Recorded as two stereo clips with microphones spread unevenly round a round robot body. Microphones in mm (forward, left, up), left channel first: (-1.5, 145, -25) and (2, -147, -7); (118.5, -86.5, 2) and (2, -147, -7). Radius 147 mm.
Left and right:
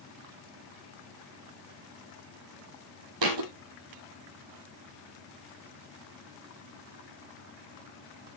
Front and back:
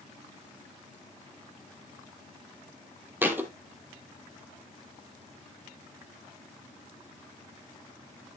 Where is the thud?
75° right, 2.5 m.